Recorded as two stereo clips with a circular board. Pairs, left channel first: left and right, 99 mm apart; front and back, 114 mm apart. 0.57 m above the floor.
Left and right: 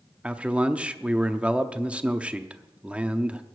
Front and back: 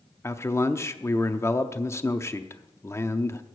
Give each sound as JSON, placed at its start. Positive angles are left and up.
{"t": 0.2, "sound": "a man speaking", "azimuth_deg": -30, "distance_m": 0.6}